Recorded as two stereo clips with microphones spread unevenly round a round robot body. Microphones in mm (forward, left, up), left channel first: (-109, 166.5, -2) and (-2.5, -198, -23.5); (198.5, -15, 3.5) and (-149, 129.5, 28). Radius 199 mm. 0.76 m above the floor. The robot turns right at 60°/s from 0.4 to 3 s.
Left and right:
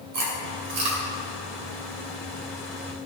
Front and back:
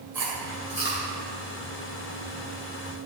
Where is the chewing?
115° right, 2.5 m; by 1.0 s 80° right, 2.5 m.